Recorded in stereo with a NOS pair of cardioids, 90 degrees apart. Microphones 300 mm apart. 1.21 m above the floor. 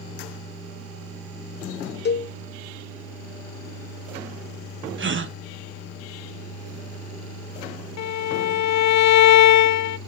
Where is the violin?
65° left, 0.7 m.